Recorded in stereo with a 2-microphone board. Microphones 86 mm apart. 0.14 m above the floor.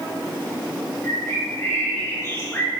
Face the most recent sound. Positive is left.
turn(degrees=30)  # may be behind; listen again after turning